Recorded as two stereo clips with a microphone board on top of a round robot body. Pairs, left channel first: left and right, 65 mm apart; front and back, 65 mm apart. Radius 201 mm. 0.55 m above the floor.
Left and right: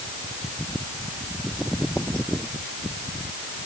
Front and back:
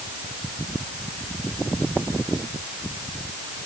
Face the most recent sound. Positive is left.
No sound to turn to.